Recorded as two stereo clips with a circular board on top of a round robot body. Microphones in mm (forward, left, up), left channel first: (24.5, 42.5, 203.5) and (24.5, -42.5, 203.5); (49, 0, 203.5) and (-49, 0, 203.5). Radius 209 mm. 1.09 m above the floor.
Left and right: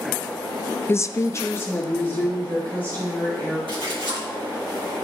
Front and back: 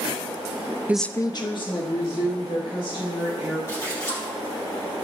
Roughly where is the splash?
Ahead right.